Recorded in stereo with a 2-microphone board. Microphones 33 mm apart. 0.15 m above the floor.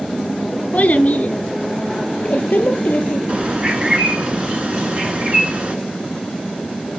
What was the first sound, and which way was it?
A child speaking, 45° left (ahead or behind).